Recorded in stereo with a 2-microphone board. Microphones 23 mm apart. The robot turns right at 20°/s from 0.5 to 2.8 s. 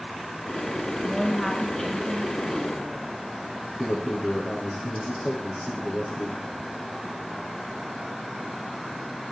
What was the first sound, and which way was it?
A woman speaking, 20° left.